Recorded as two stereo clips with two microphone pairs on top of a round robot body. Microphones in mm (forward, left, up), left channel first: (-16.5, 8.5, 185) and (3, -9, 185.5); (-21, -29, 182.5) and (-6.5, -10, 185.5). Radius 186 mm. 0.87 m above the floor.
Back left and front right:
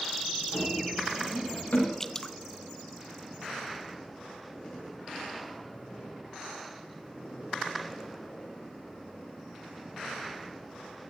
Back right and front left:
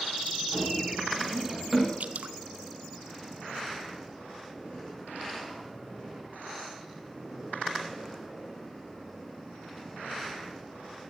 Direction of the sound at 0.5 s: 125° left.